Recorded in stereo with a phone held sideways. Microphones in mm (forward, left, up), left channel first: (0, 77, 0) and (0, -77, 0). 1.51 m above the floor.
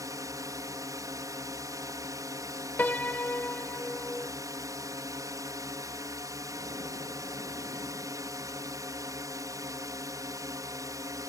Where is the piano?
10° left (ahead or behind).